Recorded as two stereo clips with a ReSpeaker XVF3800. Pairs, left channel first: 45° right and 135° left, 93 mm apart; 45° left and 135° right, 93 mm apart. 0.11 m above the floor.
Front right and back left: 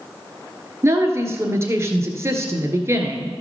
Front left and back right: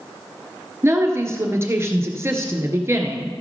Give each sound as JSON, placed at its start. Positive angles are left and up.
{"t": 0.8, "sound": "a woman speaking", "azimuth_deg": 180, "distance_m": 1.4}